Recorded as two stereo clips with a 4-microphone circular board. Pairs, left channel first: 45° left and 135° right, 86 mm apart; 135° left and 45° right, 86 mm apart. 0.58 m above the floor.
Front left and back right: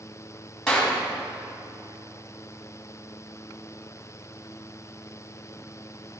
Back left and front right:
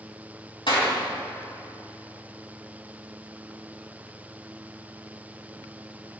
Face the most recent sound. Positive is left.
turn(degrees=125)